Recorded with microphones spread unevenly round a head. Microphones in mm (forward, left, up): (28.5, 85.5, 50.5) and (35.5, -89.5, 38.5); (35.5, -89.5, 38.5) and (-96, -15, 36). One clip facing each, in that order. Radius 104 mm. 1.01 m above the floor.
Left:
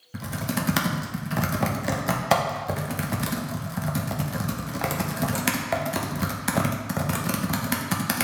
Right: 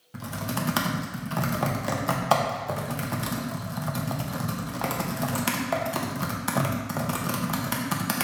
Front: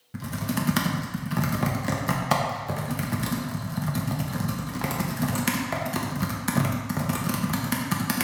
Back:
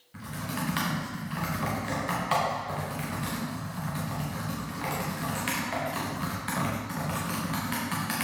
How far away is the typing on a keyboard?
About 1.0 m.